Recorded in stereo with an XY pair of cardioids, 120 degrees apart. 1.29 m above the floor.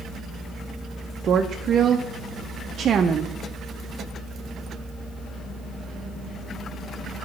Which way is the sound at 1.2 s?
45° right.